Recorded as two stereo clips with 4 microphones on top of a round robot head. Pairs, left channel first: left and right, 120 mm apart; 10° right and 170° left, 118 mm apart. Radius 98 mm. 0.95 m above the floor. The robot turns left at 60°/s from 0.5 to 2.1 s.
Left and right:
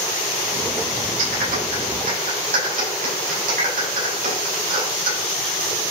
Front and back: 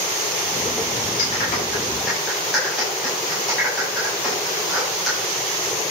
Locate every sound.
1.2 s a clap: 45° right, 6 m; by 5.2 s 100° right, 6 m